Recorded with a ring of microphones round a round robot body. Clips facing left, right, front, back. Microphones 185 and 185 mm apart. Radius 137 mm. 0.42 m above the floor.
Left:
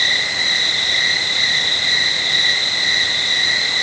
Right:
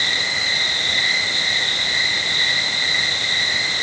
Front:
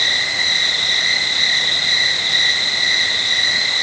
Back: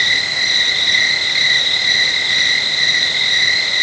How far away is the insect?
About 6.5 m.